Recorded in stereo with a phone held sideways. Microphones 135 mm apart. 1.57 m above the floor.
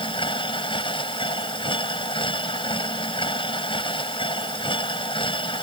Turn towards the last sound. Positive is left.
turn(degrees=40)  # may be behind; listen again after turning